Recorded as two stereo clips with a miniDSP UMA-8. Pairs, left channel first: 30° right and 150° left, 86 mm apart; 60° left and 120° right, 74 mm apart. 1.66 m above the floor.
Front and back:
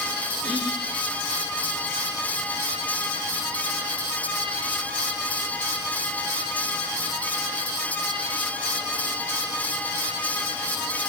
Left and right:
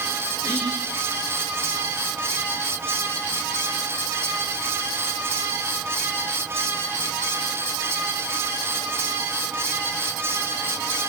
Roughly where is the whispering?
Ahead.